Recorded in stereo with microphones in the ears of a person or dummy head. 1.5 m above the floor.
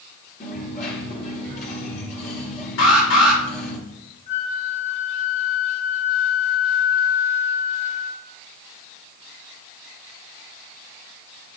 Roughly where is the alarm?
Left.